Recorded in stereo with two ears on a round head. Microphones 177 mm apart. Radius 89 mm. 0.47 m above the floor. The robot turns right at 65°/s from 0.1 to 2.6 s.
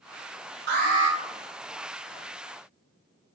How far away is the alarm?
About 1.0 m.